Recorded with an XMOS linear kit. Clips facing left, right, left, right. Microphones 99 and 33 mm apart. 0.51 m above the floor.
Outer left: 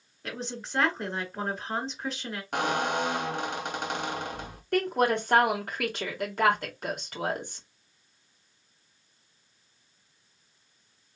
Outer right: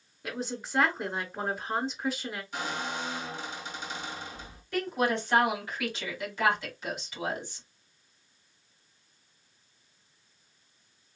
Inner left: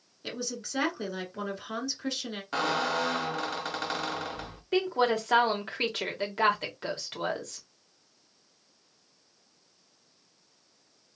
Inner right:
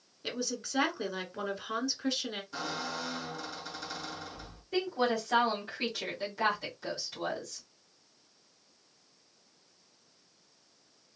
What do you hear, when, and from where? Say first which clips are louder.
0.2 s a woman speaking: outer right 1 dB, even; 5° right (ahead or behind), 2 m
2.5 s a squeak: outer left 9 dB, inner left 12 dB; 65° left (ahead or behind), 0.6 m
4.7 s a woman speaking: outer left 4 dB, inner left 4 dB; 55° left (ahead or behind), 1.6 m